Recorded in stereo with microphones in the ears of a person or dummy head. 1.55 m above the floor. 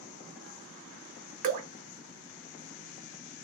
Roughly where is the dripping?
Right.